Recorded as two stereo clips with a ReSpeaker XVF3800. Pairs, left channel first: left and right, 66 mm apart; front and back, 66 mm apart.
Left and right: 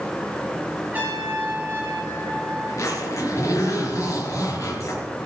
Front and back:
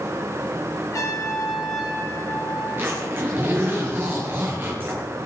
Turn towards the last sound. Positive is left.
turn(degrees=125)